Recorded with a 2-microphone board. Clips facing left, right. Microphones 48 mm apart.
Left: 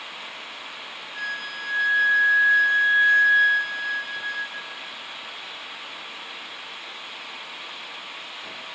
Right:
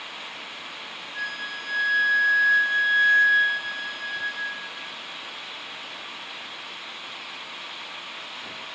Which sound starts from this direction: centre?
A flute, at 1.1 s.